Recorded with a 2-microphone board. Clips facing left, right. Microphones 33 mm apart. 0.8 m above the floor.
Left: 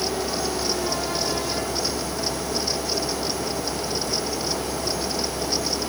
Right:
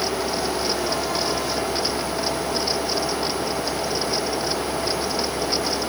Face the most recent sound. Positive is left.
No sound to turn to.